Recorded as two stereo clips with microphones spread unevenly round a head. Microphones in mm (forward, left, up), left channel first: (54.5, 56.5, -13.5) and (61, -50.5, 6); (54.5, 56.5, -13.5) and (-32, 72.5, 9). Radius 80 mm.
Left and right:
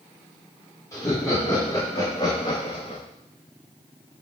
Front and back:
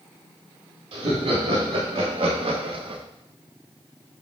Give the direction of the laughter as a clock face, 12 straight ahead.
6 o'clock.